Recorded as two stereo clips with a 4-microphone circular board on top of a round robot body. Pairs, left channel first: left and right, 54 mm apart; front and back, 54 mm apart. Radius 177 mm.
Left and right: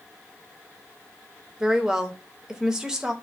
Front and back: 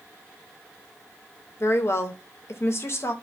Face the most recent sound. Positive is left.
turn(degrees=-15)